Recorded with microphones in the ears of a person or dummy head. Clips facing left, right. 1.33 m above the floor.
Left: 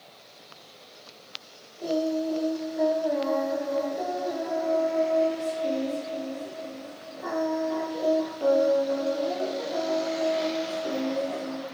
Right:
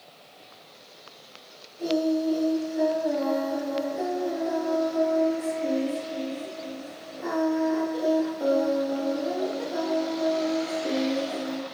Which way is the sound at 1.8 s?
40° right (ahead or behind).